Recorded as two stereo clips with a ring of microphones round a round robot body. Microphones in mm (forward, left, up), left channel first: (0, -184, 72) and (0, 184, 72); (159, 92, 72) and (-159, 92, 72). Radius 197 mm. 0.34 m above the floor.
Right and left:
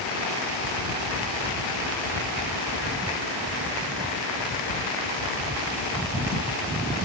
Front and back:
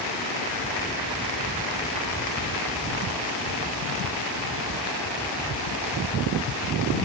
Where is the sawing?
I don't hear sawing.